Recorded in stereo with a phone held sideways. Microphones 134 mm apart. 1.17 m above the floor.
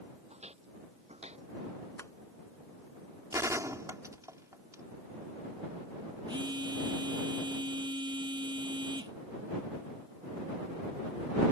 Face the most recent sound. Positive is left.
turn(degrees=-30)  # may be behind; listen again after turning